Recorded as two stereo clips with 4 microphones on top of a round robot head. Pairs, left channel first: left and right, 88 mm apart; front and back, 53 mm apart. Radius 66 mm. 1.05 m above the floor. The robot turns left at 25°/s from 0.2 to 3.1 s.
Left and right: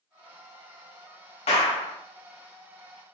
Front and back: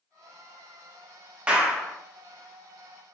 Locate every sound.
1.5 s a clap: 110° left, 0.7 m; by 2.0 s 100° left, 0.7 m